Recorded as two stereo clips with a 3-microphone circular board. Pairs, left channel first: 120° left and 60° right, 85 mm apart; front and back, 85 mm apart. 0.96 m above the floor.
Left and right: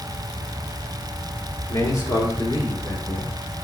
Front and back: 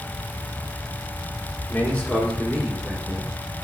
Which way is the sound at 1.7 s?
70° left.